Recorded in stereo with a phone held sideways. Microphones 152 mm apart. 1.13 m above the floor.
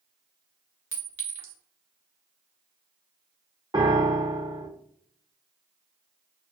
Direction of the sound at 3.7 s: 30° right (ahead or behind).